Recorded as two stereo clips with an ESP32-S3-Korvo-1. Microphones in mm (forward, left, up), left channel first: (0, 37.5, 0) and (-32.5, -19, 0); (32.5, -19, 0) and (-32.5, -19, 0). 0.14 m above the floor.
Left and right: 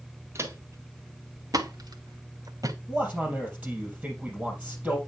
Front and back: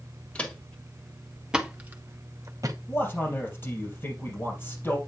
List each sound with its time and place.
0.3 s footsteps: 75° right, 1.9 m; by 2.8 s 150° right, 1.2 m
2.9 s a man speaking: 50° right, 3.5 m